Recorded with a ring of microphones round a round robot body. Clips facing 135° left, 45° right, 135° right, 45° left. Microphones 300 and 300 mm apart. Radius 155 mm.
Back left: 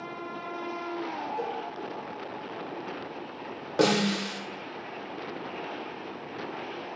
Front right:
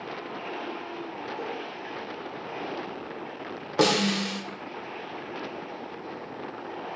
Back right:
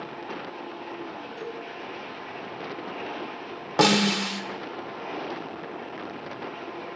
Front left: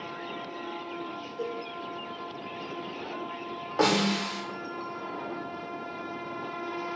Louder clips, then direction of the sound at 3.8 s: Even, back right 3 dB; 125° right.